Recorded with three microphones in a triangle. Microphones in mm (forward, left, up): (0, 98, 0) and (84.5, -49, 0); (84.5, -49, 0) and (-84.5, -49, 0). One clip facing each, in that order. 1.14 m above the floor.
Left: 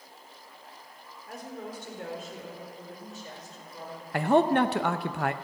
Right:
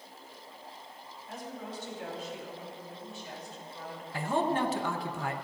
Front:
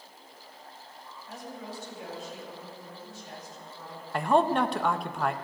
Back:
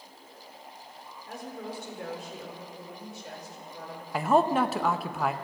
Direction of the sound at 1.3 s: 150° left.